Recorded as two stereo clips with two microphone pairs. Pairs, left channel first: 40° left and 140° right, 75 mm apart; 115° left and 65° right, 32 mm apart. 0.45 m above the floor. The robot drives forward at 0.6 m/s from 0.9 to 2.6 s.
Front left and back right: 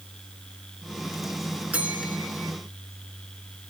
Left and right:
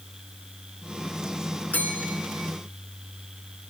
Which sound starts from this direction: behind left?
A bell, at 1.7 s.